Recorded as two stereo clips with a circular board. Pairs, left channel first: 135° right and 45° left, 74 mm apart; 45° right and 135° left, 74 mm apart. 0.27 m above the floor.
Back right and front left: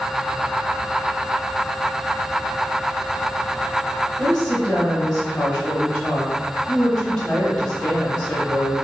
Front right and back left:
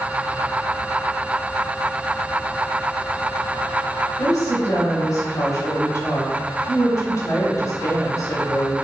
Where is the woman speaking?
45° right, 1.4 m.